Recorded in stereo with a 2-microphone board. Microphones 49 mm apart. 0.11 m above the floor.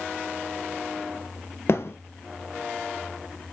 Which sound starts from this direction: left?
A thud, at 1.7 s.